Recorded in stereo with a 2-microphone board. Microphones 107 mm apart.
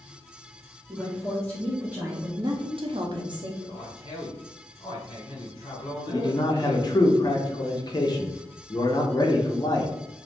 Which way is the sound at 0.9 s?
5° left (ahead or behind).